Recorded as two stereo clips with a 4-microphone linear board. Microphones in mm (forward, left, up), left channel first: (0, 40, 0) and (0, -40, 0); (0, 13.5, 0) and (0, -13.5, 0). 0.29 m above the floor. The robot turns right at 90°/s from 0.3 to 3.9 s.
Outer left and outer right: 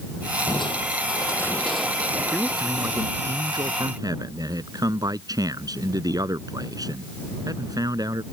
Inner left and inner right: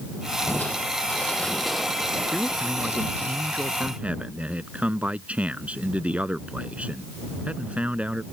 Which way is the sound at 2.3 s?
160° left.